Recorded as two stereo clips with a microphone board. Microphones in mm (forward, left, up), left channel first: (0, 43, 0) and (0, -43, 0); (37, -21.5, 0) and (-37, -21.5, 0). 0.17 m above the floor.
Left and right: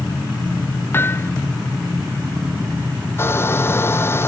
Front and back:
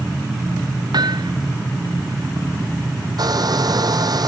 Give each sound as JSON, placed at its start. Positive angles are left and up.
{"t": 0.9, "sound": "hammering", "azimuth_deg": 155}
{"t": 3.2, "sound": "a hair dryer", "azimuth_deg": 150}